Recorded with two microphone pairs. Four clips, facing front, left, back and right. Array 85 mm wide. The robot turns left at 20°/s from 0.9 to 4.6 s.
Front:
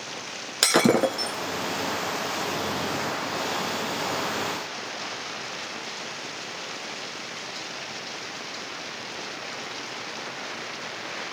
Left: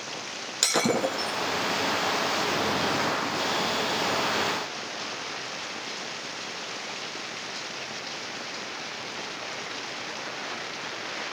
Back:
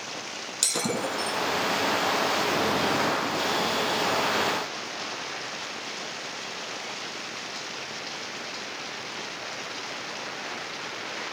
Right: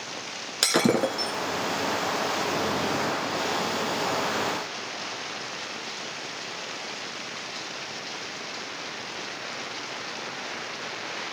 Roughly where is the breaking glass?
Ahead.